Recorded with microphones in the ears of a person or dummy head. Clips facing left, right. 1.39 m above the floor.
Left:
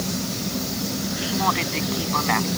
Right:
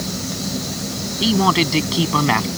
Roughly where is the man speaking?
Right.